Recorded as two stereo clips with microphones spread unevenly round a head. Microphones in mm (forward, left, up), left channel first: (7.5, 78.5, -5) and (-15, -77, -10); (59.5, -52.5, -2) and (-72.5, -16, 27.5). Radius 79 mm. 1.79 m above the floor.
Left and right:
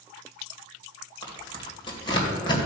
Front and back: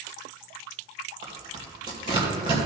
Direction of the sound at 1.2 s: 130° left.